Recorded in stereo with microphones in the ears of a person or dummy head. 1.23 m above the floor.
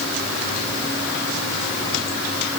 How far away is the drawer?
No drawer in this recording.